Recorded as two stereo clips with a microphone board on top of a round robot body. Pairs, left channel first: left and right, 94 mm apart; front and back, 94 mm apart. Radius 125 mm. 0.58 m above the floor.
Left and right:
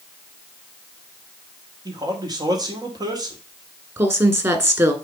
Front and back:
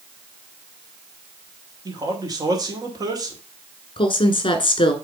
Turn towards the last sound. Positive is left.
turn(degrees=-30)